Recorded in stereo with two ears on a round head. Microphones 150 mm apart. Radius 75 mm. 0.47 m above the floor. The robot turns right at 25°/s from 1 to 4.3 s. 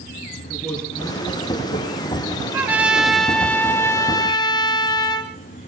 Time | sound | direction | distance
0.5 | a man speaking | 5° left | 8 m
2.5 | a trumpet | 15° right | 2.5 m